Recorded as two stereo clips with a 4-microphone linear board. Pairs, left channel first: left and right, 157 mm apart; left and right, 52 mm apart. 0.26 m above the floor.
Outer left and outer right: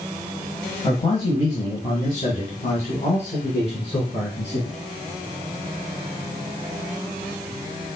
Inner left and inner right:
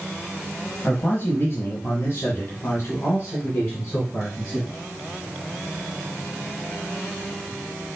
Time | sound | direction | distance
0.8 | a man speaking | 30° left (ahead or behind) | 1.2 m